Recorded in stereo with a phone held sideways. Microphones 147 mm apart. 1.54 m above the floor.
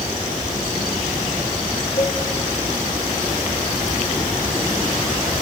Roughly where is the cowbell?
Left.